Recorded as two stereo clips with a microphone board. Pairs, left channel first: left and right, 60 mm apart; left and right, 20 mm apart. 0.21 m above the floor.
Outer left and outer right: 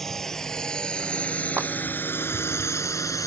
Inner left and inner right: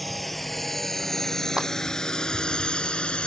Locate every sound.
0.0 s a drone: 5° left (ahead or behind); by 3.3 s 55° left (ahead or behind)
1.6 s a clap: 35° right (ahead or behind)